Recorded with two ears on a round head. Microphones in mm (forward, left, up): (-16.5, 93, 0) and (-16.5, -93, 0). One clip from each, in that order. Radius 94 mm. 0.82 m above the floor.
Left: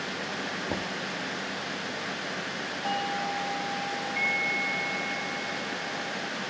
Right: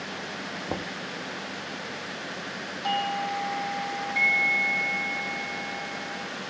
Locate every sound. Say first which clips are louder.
0.7 s knocking: left 1 dB; 40° right (ahead or behind)
2.8 s a doorbell: right 3 dB; 35° right (ahead or behind)